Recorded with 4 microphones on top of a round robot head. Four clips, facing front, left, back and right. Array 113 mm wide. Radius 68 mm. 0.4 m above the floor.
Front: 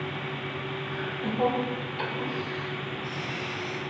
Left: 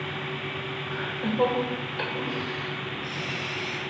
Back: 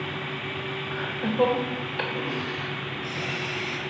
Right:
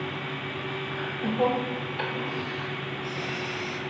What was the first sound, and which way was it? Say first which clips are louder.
Laughter: left 2 dB, back 5 dB; 145° left.